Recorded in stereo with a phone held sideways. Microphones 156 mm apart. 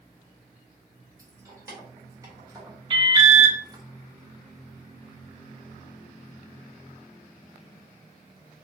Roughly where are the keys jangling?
Right.